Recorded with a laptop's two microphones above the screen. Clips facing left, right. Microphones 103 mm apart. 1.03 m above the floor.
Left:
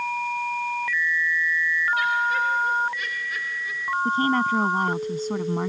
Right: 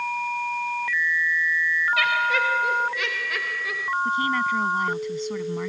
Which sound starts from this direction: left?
A woman speaking, at 4.0 s.